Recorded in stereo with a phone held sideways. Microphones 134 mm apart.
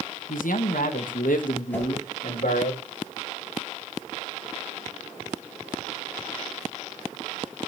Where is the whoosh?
10° left (ahead or behind), 6.5 m.